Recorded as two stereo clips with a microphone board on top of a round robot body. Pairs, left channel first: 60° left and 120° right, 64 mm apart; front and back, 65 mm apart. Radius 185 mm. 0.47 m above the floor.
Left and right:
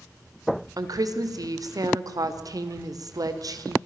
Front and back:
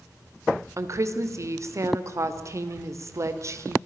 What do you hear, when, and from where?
0.8 s a woman speaking: 140° right, 2.5 m